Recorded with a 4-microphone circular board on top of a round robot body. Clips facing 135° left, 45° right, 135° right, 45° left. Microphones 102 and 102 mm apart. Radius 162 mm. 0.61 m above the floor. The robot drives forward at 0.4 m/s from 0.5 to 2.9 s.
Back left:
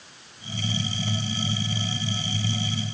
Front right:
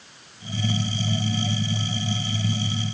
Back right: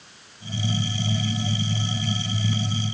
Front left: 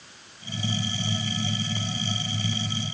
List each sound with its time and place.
Only background noise.